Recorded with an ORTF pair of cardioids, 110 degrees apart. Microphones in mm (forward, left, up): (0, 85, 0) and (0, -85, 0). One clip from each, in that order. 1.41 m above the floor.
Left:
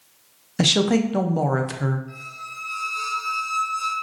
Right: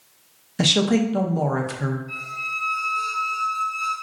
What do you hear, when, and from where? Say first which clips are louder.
0.6 s a woman speaking: even; 15° left, 0.5 m
2.1 s a squeak: right 8 dB; 20° left, 1.5 m